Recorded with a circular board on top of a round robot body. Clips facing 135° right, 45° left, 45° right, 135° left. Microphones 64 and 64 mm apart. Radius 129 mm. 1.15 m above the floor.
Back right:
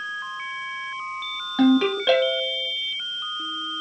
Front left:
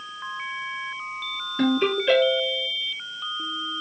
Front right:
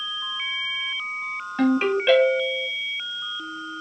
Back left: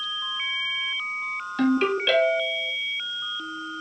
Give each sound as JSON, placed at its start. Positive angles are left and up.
{"t": 1.6, "sound": "a ringtone", "azimuth_deg": -115, "distance_m": 1.4}